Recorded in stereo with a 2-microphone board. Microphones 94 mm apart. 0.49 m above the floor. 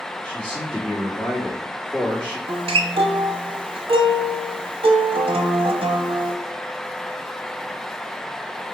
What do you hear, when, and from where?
0.2 s a man speaking: 10° left (ahead or behind), 1.4 m
2.5 s a guitar: 80° right, 0.8 m